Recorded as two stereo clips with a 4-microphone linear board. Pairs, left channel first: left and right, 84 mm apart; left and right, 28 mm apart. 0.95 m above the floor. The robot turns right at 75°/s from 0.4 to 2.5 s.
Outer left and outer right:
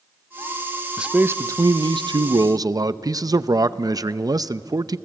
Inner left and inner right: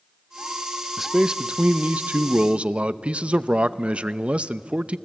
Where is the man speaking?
170° right, 0.5 m; by 5.0 s 55° right, 0.5 m.